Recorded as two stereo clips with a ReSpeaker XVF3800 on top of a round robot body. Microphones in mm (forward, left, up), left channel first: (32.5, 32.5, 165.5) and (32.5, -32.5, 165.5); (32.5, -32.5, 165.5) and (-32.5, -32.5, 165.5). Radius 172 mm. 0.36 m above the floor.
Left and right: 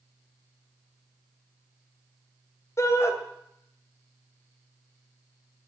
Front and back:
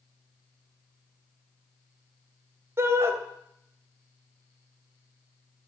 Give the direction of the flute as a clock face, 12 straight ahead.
No flute in this recording.